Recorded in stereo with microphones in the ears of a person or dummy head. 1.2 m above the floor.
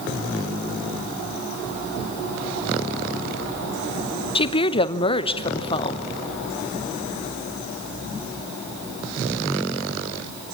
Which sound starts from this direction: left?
A woman speaking, at 4.3 s.